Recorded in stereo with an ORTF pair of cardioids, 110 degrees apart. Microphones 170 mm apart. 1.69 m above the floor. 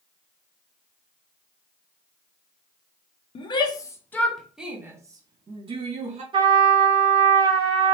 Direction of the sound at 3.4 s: 35° left.